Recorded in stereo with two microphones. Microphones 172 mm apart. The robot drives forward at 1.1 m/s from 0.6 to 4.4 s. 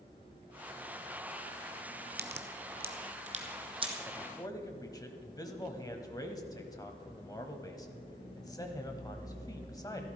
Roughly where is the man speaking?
Left.